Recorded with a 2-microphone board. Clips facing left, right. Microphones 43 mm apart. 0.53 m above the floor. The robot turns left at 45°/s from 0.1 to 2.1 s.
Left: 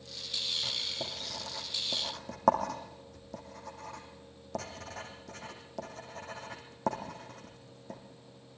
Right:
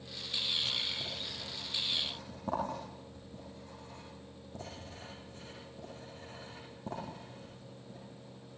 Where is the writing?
30° left (ahead or behind), 6 m; by 8.0 s 85° left, 6 m.